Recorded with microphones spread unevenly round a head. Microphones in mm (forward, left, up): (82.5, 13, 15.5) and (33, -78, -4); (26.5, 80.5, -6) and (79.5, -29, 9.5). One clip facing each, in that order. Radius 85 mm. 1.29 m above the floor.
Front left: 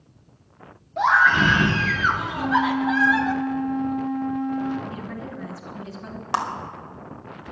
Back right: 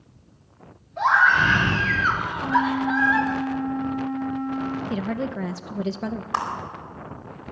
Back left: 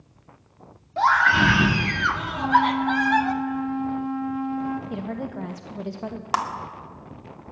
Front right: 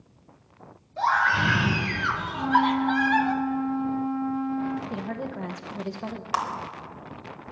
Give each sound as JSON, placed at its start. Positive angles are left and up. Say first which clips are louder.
{"t": 1.0, "sound": "a scream", "louder": "front left 1 dB, back left 4 dB", "azimuth_deg": 100, "distance_m": 2.5}
{"t": 2.3, "sound": "a flute", "louder": "even, back left 2 dB", "azimuth_deg": 40, "distance_m": 1.6}
{"t": 4.9, "sound": "a woman speaking", "louder": "back right 7 dB, back left 2 dB", "azimuth_deg": -155, "distance_m": 0.8}
{"t": 6.3, "sound": "a clap", "louder": "front left 2 dB, back left 3 dB", "azimuth_deg": 80, "distance_m": 2.0}